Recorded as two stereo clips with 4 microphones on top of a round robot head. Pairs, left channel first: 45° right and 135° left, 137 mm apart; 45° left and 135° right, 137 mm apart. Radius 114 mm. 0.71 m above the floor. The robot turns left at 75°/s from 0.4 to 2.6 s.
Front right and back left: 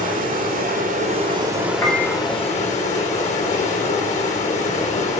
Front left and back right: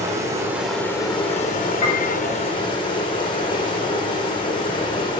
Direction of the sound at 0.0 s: 155° left.